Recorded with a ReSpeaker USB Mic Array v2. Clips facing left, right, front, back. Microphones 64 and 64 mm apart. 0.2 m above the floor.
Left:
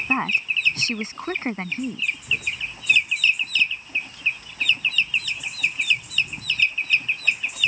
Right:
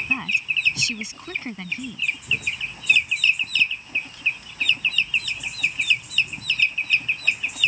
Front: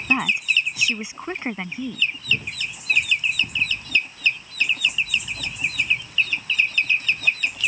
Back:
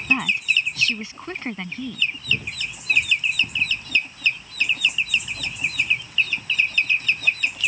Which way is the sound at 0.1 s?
70° left.